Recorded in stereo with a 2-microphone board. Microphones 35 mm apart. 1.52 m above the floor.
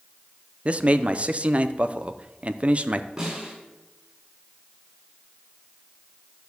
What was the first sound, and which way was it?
A man speaking, 40° right (ahead or behind).